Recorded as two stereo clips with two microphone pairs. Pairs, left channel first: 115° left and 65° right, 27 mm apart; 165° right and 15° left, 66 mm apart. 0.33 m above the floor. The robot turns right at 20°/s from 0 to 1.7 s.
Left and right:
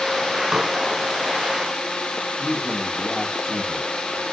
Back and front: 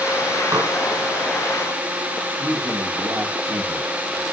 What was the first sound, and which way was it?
Dishes clattering, 5° right.